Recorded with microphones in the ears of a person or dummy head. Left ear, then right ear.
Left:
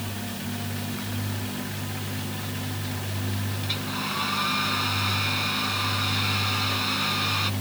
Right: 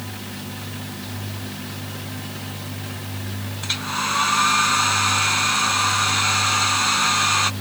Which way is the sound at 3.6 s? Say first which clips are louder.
Right 7 dB; 40° right (ahead or behind).